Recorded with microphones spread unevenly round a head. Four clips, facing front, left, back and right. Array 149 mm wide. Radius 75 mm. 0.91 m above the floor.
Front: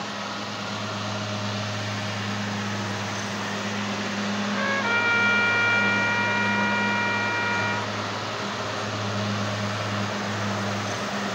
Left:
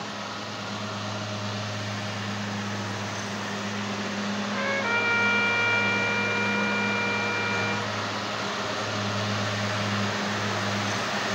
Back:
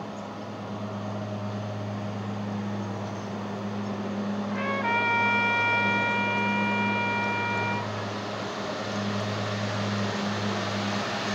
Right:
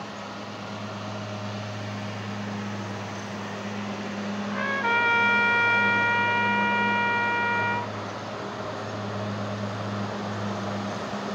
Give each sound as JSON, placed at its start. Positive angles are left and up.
{"t": 4.5, "sound": "a trumpet", "azimuth_deg": -40, "distance_m": 4.0}